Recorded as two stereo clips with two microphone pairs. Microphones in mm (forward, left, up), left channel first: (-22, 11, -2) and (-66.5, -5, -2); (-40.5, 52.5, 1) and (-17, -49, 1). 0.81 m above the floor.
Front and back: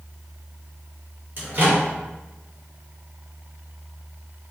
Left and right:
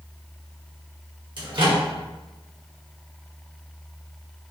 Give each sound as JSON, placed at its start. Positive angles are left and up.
{"t": 1.4, "sound": "a microwave", "azimuth_deg": -115, "distance_m": 1.4}